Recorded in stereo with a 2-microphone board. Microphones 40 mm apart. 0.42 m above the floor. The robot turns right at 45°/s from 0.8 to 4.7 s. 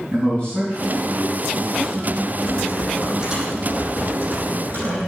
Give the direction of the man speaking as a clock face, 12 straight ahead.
7 o'clock.